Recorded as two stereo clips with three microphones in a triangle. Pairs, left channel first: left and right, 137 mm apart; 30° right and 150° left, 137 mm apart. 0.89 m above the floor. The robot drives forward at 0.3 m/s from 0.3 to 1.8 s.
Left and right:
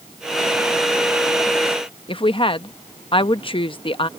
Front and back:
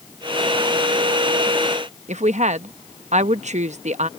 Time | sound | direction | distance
2.1 | a woman speaking | 135° left | ?